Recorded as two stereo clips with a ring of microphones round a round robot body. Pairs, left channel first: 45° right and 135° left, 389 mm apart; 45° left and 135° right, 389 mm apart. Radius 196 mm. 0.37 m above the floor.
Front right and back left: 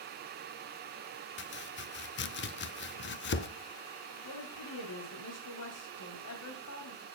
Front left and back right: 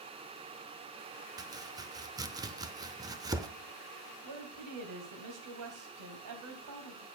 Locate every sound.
1.4 s chopping: 65° right, 0.6 m
4.2 s a woman speaking: 95° right, 2 m